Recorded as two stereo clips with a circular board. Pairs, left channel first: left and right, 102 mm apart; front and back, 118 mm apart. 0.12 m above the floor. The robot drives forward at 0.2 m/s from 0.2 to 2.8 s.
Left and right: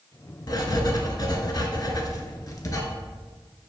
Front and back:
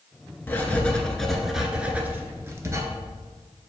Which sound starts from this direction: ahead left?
Writing, at 0.5 s.